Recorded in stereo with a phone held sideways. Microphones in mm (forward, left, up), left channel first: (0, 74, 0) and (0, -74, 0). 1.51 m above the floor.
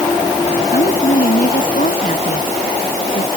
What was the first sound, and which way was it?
A woman speaking, 70° left (ahead or behind).